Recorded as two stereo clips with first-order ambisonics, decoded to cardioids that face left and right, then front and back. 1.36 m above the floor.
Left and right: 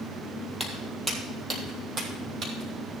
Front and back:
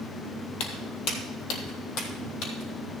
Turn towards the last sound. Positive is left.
turn(degrees=-35)